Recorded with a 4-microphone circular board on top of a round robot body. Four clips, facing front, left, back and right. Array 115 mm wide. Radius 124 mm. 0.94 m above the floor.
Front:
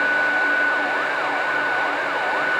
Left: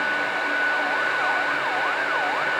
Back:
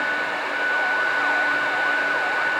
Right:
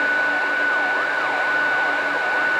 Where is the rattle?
I don't hear a rattle.